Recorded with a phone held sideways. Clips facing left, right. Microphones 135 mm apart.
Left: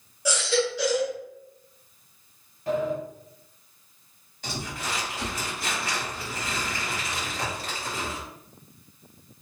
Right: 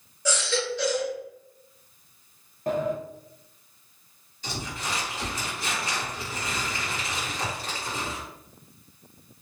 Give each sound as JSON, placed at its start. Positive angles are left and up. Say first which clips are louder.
{"t": 0.2, "sound": "a baby crying", "louder": "left 3 dB", "side_deg": 10, "distance_m": 1.1}
{"t": 2.7, "sound": "a sliding door", "louder": "even", "side_deg": -45, "distance_m": 0.6}
{"t": 4.4, "sound": "crumpling", "louder": "even", "side_deg": 60, "distance_m": 1.8}